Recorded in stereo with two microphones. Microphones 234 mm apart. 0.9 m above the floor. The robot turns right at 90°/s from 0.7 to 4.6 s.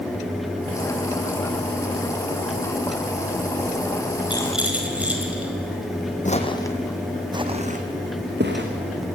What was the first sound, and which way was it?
A rattle, 20° left (ahead or behind).